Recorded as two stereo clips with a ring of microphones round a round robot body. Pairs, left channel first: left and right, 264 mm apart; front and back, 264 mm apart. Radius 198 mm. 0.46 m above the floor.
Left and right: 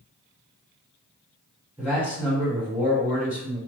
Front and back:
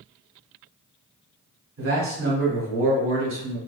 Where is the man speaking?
170° right, 1.5 m.